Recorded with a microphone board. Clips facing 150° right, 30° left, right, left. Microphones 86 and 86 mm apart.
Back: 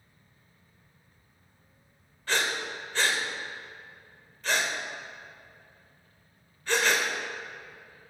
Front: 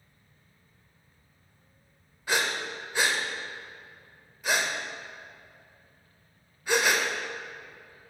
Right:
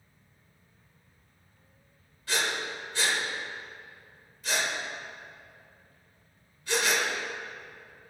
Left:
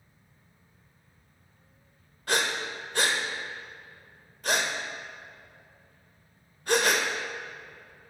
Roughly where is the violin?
I don't hear a violin.